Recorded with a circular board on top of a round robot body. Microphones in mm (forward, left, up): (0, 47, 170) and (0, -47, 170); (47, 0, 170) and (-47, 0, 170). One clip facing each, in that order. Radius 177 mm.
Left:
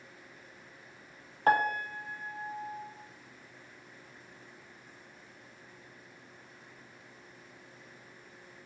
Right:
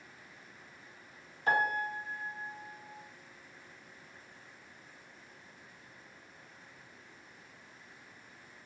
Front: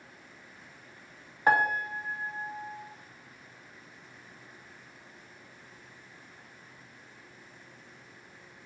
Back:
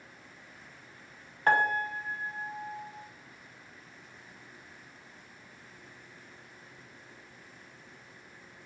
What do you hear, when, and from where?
1.5 s a piano: 80° left, 1.1 m